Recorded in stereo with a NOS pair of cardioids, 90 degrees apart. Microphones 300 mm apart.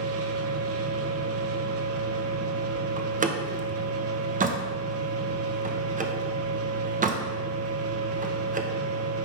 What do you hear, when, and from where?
0.0 s a machine running: 50° right, 1.0 m
3.0 s a door slam: 25° right, 1.1 m